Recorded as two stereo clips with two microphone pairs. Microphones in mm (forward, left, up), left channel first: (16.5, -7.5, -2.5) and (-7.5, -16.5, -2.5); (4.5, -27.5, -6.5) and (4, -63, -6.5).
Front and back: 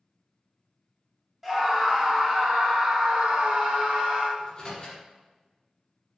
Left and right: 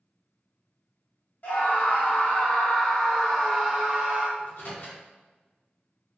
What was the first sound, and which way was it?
A scream, 120° left.